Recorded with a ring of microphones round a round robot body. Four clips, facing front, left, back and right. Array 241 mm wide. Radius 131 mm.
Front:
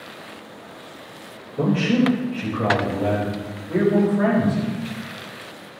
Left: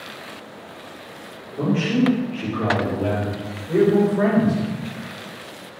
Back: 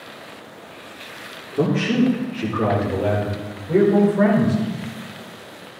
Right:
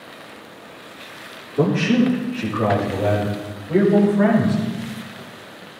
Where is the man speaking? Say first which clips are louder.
Right 3 dB, back 1 dB; 150° right, 3 m; by 4.6 s 155° left, 5 m.